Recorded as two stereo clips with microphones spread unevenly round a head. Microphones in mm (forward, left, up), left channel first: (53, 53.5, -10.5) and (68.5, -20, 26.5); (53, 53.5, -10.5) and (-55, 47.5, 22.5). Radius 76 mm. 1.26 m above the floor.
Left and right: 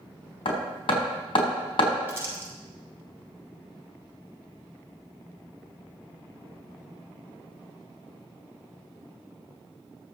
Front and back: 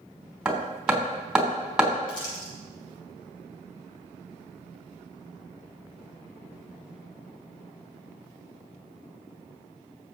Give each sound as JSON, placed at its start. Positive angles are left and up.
{"t": 0.5, "sound": "hammering", "azimuth_deg": 100, "distance_m": 3.5}
{"t": 2.1, "sound": "crumpling", "azimuth_deg": -20, "distance_m": 6.0}